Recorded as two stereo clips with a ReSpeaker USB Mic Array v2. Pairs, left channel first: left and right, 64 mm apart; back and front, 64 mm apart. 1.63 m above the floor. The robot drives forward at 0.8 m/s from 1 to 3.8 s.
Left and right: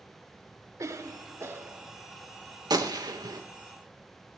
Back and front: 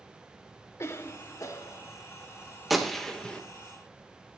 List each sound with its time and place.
0.8 s a cough: 130° right, 1.5 m; by 1.9 s 145° right, 2 m
2.7 s a gunshot: 90° right, 2 m; by 3.4 s 105° right, 2.5 m